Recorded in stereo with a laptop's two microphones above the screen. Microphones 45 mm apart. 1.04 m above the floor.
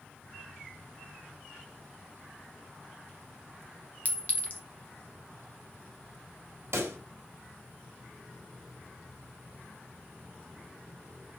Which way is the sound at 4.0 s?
35° left (ahead or behind).